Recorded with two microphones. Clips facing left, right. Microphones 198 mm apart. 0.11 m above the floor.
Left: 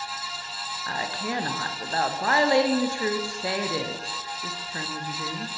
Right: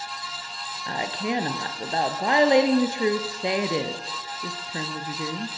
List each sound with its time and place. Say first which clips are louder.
0.9 s a woman speaking: right 4 dB; 20° right (ahead or behind), 1.9 m